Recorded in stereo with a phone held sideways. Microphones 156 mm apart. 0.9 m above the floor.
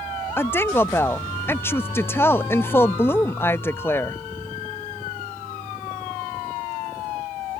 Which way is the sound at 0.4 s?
15° left (ahead or behind).